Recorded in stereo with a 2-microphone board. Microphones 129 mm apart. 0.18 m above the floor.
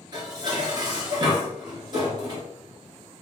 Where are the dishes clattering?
35° right (ahead or behind), 1.7 m.